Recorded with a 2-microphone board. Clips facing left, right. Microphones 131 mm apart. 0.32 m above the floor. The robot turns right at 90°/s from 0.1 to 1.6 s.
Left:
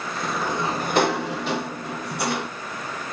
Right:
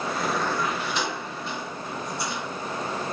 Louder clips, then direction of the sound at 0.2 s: Left 2 dB; 10° right.